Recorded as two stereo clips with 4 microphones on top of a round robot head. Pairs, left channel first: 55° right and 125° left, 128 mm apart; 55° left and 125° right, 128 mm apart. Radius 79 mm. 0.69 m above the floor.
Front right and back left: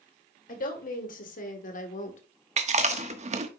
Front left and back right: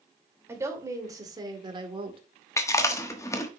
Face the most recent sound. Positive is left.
turn(degrees=120)